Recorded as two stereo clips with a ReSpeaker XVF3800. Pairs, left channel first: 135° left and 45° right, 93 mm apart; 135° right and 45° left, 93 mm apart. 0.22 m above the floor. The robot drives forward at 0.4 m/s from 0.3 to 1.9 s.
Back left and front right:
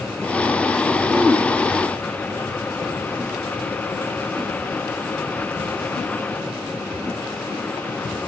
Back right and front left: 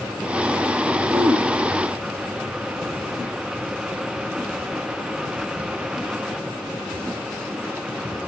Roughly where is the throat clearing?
Ahead.